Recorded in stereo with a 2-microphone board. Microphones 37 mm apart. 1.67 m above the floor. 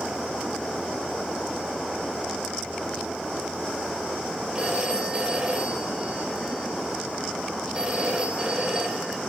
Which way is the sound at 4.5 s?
30° right (ahead or behind).